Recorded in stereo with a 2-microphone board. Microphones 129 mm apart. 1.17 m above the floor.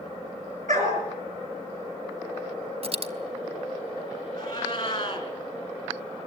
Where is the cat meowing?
35° left (ahead or behind), 3 m.